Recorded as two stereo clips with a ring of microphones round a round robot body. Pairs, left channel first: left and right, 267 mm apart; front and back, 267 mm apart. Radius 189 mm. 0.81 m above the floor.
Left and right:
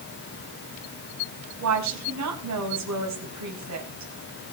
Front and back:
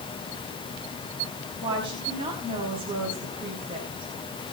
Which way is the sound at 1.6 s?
100° right.